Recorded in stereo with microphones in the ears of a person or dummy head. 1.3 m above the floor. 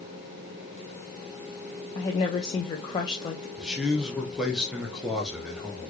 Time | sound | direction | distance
1.9 | a woman speaking | 25° left (ahead or behind) | 0.6 m
3.6 | a man speaking | centre (ahead or behind) | 0.8 m